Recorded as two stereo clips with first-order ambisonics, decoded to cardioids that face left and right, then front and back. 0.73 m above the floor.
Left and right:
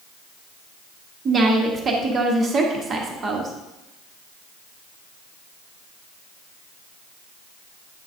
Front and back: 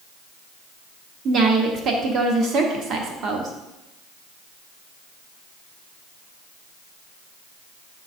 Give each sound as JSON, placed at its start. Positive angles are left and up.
{"t": 1.2, "sound": "a woman speaking", "azimuth_deg": -145, "distance_m": 1.0}